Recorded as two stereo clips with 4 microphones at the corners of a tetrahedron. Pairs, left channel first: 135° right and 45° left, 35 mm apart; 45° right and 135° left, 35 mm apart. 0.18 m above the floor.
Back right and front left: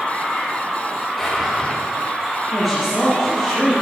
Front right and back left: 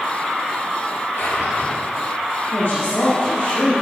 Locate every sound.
1.2 s a drawer: 50° right, 3 m
2.5 s a woman speaking: 55° right, 2.5 m